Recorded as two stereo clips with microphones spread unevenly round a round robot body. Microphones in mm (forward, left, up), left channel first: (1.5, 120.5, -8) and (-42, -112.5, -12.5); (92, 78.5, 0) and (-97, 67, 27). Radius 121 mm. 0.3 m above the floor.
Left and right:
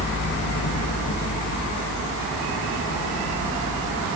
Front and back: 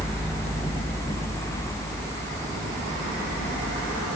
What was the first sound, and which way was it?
Only background noise.